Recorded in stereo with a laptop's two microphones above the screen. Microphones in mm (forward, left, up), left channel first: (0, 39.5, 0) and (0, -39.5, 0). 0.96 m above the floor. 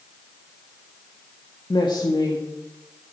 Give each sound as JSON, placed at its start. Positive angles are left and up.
{"t": 1.7, "sound": "a woman speaking", "side_deg": 75, "distance_m": 1.6}